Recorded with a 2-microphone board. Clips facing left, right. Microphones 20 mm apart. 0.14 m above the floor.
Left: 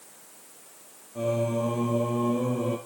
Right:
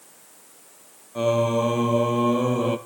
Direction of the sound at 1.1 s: 75° right (ahead or behind).